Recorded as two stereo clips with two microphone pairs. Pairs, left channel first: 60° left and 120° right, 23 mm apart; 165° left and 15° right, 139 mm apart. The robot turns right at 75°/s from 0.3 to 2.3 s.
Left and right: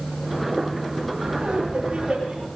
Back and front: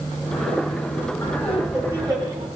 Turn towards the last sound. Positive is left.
turn(degrees=-55)